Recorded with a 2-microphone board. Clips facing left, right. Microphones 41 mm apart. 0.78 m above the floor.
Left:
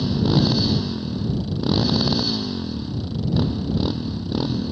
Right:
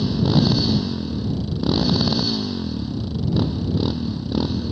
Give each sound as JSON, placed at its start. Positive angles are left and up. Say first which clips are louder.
{"t": 0.0, "sound": "a motorcycle", "louder": "right 1 dB", "side_deg": 0}